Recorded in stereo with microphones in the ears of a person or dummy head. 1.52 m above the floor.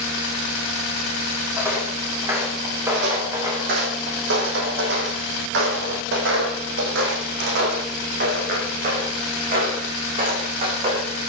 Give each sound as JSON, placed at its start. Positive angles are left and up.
{"t": 1.6, "sound": "footsteps", "side_deg": -5, "distance_m": 4.0}
{"t": 2.9, "sound": "footsteps", "side_deg": -60, "distance_m": 5.0}